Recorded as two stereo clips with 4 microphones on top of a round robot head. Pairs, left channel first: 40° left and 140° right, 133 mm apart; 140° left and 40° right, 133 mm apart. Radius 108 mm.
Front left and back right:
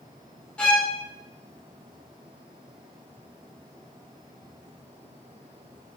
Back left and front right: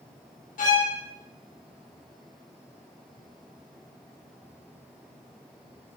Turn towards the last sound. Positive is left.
turn(degrees=125)